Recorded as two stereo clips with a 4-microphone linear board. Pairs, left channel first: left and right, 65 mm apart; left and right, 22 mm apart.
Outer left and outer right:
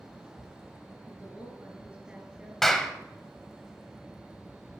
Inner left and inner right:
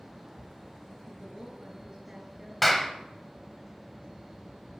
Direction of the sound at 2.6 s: 5° left (ahead or behind).